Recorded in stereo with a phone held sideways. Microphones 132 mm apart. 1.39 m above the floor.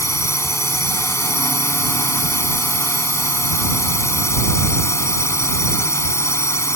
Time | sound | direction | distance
0.0 | a drone | 20° left (ahead or behind) | ?